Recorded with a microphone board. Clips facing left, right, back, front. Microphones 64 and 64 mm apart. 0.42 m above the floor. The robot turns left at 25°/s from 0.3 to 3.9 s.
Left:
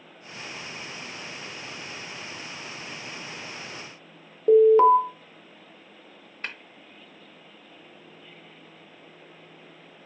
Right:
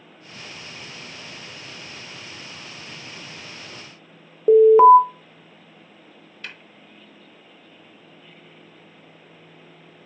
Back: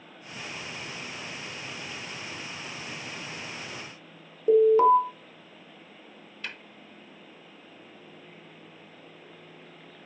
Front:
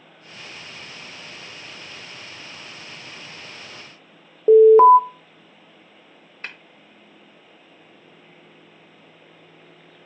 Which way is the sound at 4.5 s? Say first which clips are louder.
Right 5 dB, front 9 dB; 25° right.